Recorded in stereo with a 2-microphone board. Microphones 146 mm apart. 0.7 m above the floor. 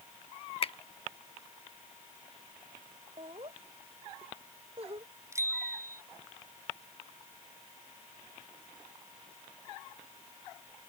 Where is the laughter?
40° right (ahead or behind).